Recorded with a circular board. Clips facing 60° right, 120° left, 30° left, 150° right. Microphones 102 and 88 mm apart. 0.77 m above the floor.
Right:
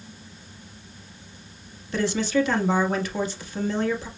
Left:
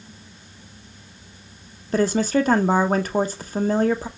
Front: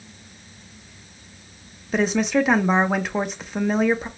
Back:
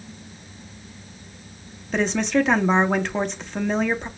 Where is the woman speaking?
115° left, 0.7 m.